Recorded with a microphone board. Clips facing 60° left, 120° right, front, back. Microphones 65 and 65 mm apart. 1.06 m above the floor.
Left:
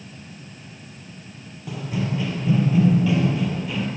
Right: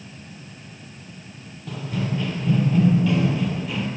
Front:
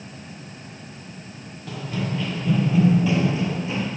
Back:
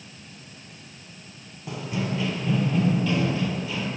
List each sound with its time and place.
1.7 s running footsteps: 130° left, 1.2 m; by 3.9 s 30° right, 1.2 m